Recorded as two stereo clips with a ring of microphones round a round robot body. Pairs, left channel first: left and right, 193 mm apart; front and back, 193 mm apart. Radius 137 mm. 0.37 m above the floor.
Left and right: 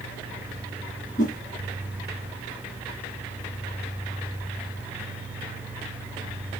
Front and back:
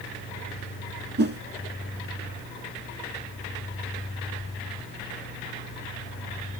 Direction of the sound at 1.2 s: 150° left.